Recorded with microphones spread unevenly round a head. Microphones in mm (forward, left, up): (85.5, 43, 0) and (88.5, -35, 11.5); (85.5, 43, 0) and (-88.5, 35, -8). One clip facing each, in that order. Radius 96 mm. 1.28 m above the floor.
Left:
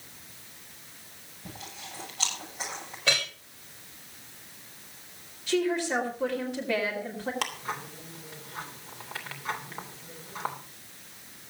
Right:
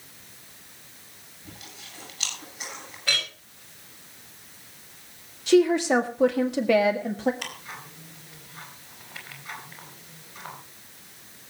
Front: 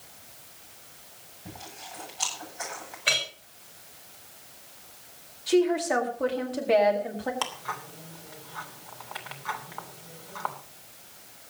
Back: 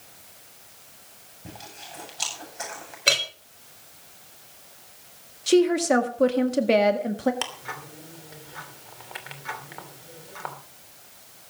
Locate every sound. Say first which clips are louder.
1.4 s chewing: left 3 dB, back 1 dB; 135° left, 9 m
3.1 s a clink: left 1 dB, back 6 dB; 145° left, 3 m
5.5 s a woman speaking: right 8 dB, back 4 dB; 130° right, 1.9 m
7.4 s ticking: left 5 dB, front 1 dB; 115° left, 3 m